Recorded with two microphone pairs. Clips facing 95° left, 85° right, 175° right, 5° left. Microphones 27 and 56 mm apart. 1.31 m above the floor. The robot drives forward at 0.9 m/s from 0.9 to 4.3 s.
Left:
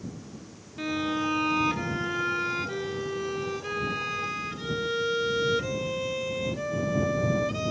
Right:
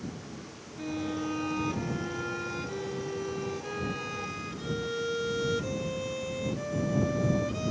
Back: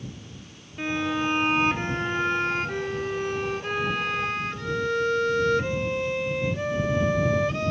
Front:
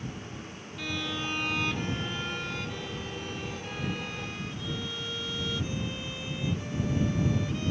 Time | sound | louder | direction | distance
0.8 | a violin | left 5 dB, back 8 dB | 130° left | ?